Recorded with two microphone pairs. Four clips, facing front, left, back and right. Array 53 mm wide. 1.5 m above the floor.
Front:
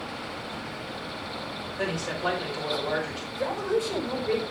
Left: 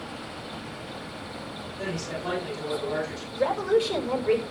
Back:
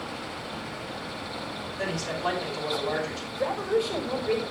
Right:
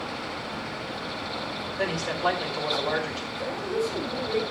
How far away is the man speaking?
About 10 m.